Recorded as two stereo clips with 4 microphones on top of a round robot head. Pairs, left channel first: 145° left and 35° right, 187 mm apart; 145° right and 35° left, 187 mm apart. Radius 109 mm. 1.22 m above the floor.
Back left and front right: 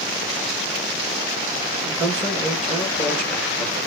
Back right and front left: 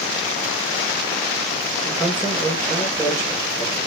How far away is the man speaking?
About 2 m.